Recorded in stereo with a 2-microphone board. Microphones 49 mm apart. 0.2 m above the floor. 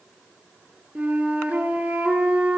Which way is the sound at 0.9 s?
25° right (ahead or behind).